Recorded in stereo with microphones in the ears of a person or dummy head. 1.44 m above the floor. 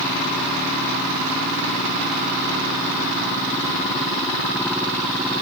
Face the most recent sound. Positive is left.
No sound to turn to.